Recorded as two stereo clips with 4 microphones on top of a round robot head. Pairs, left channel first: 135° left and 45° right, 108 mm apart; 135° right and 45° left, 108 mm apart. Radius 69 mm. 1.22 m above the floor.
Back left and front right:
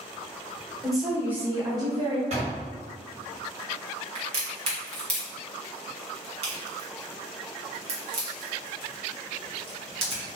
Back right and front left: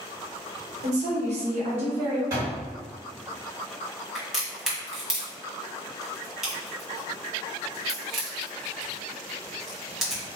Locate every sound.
0.8 s a woman speaking: 50° left, 0.9 m; by 2.2 s straight ahead, 1.4 m
2.3 s a door slam: 20° right, 1.8 m
4.2 s a crack: 40° right, 1.4 m